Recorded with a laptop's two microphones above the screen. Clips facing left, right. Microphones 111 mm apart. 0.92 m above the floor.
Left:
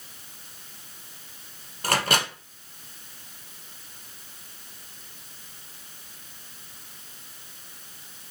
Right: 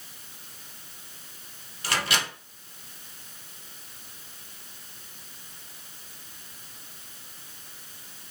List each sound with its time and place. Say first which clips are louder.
1.8 s a microwave: left 4 dB; 50° left (ahead or behind), 0.6 m